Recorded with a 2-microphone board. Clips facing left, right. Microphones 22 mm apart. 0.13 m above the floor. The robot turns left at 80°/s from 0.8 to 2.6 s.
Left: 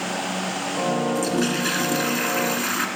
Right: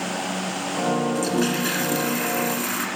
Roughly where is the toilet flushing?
Centre.